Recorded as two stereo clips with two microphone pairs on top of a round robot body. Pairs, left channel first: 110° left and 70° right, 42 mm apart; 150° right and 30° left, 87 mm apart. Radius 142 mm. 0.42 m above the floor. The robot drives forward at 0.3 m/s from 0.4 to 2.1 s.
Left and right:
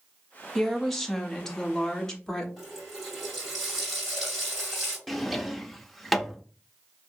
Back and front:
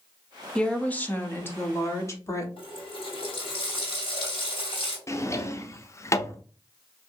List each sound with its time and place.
0.6 s a woman speaking: 160° left, 0.8 m; by 2.5 s 175° left, 1.0 m
2.6 s a running tap: 160° right, 2.5 m
5.1 s a drawer: straight behind, 0.5 m